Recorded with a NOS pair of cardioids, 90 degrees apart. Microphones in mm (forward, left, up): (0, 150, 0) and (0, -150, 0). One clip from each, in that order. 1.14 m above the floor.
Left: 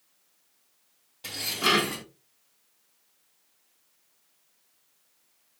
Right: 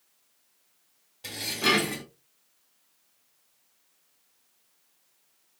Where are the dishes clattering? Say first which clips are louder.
Even; 10° left, 3 m.